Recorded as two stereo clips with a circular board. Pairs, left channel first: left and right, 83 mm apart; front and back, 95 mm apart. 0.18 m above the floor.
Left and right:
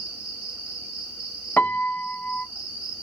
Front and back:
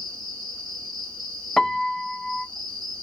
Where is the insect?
25° right, 2 m.